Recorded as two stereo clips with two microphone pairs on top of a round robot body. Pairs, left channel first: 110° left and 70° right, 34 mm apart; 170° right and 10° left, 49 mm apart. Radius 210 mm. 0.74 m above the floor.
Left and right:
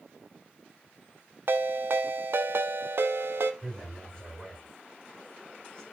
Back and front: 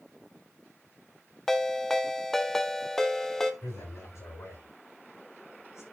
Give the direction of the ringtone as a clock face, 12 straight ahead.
3 o'clock.